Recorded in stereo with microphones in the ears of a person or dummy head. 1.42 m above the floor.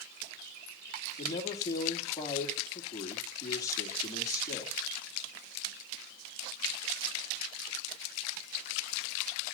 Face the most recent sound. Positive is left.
turn(degrees=15)  # may be behind; listen again after turning